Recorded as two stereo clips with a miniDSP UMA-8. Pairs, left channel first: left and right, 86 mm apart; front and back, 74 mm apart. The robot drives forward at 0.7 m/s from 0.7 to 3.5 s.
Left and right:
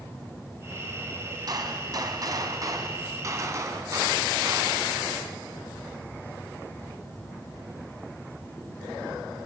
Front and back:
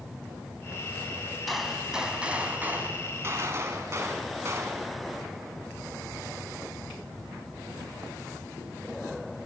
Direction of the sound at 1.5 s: 90° right.